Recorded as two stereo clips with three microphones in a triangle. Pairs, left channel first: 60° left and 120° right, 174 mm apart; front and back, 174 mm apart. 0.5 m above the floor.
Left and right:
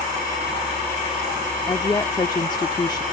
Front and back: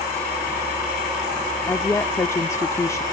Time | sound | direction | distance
1.7 | a woman speaking | 45° left | ?